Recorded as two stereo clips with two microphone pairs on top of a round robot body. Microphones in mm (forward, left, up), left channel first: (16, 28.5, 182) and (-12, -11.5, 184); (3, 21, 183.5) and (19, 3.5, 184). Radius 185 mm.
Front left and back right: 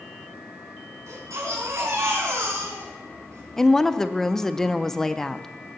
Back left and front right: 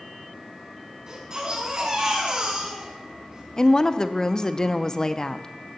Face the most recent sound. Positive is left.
turn(degrees=120)